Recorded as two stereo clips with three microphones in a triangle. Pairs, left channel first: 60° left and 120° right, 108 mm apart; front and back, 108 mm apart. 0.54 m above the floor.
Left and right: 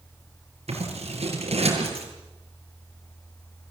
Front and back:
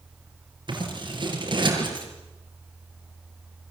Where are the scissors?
135° right, 7 m.